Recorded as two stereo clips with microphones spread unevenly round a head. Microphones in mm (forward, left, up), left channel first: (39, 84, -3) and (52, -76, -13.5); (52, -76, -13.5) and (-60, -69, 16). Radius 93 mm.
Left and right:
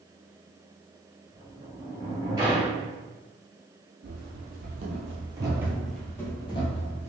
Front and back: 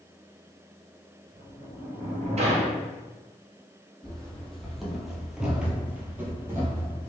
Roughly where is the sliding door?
Behind right.